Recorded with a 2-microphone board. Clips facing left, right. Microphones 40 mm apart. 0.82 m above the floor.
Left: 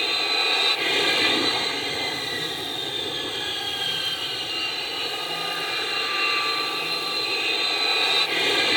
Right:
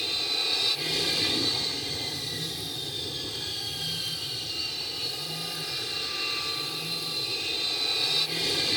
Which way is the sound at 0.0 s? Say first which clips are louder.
Left 7 dB; 45° left (ahead or behind).